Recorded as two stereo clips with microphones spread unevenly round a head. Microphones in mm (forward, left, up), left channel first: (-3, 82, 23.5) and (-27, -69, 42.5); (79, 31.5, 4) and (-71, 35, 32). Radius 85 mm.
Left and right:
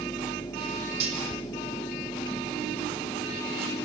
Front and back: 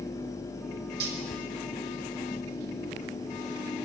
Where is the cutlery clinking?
150° right, 3.5 m.